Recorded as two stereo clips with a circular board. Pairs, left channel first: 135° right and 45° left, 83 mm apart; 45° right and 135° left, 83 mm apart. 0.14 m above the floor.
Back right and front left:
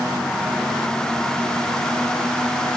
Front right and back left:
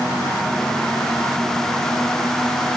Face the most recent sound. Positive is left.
No sound to turn to.